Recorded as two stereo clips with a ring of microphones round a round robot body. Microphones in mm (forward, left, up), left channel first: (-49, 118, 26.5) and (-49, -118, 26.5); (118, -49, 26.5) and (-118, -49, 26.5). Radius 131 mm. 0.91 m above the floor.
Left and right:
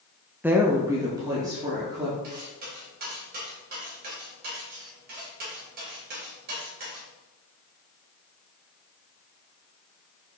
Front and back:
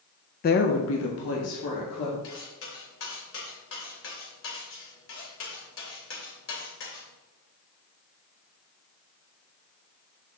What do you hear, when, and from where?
0.4 s a woman speaking: 10° right, 0.6 m; by 2.1 s 15° right, 2 m
2.2 s cutlery clinking: 35° right, 3 m